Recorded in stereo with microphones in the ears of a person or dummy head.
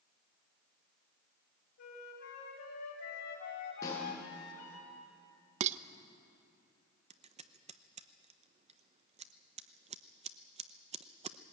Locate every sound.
1.8 s a flute: 75° left (ahead or behind), 4.5 m
3.8 s a snare drum: 20° left (ahead or behind), 8.5 m
5.6 s dishes clattering: 45° right (ahead or behind), 0.6 m
7.1 s scissors: 30° right (ahead or behind), 0.7 m